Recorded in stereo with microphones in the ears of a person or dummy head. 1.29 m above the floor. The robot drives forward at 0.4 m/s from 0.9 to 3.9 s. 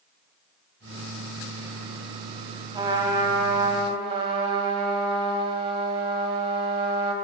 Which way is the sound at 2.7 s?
25° right (ahead or behind).